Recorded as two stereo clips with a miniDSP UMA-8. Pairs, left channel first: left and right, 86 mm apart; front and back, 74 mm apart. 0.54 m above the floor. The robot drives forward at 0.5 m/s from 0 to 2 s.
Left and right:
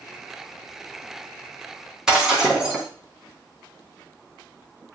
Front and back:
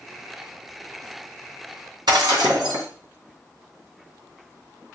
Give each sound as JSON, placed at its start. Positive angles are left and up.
{"t": 2.1, "sound": "breaking glass", "azimuth_deg": -170, "distance_m": 3.0}